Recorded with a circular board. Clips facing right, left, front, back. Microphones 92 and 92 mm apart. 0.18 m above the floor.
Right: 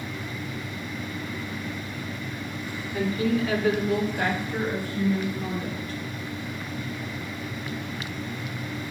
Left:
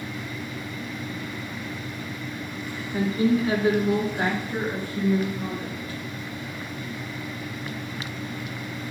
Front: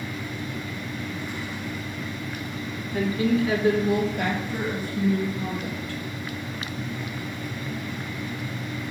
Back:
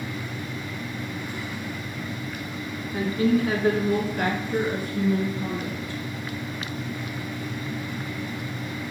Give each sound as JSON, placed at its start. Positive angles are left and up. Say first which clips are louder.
{"t": 2.9, "sound": "a woman speaking", "louder": "left 3 dB, back 1 dB", "azimuth_deg": 135, "distance_m": 2.0}